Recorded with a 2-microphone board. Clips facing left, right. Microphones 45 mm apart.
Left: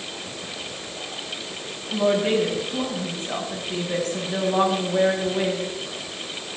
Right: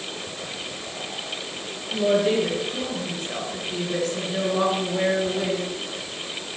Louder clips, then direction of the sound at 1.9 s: Even; 40° left (ahead or behind).